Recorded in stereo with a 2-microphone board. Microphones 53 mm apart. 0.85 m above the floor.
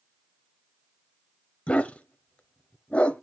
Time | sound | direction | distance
1.7 | a dog barking | 20° left (ahead or behind) | 1.0 m